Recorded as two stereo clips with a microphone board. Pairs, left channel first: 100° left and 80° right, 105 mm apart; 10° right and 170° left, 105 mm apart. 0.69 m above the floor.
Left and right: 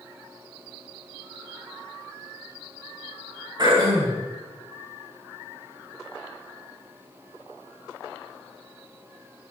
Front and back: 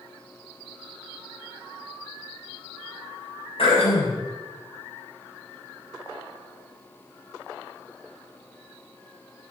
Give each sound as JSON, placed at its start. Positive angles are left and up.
{"t": 3.6, "sound": "throat clearing", "azimuth_deg": -30, "distance_m": 5.5}